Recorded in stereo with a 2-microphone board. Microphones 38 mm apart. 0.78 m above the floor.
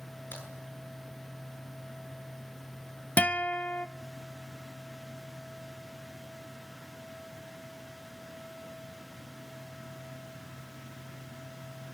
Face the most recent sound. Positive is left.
turn(degrees=40)  # may be behind; listen again after turning